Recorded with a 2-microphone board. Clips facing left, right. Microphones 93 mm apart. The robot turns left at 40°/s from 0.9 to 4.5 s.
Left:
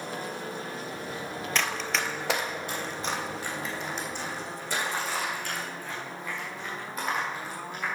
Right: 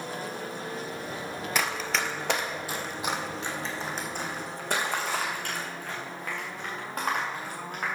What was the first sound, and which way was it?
Running footsteps, 10° right (ahead or behind).